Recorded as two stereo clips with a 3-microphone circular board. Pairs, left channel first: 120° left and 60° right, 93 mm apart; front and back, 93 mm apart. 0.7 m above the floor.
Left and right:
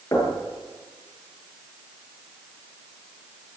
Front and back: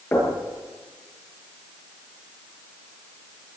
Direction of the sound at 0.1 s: 65° left.